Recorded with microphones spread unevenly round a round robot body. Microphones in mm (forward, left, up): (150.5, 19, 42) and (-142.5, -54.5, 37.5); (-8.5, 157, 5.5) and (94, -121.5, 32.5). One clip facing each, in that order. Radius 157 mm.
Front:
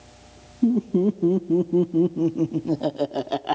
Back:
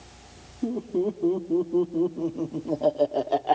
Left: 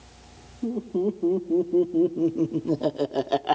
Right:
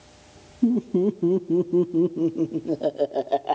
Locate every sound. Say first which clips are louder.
0.6 s laughter: front 6 dB, right 5 dB; 30° right, 1.3 m; by 3.6 s 70° left, 1.1 m